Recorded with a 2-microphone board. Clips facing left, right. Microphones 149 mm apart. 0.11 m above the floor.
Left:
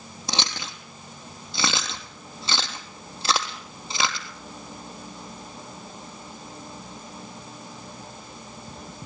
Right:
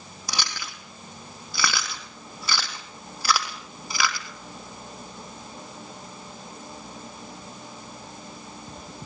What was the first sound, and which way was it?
Chewing, 20° left (ahead or behind).